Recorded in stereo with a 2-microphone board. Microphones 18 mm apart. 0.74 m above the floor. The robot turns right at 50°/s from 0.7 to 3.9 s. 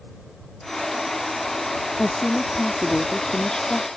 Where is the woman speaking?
15° left; by 3.9 s 105° left.